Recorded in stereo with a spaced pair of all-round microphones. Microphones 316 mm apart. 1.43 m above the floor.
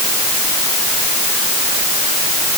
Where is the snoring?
No snoring in this recording.